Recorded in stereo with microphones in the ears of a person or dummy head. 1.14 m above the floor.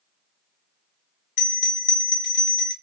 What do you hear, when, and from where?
1.4 s a bell: 50° left (ahead or behind), 0.7 m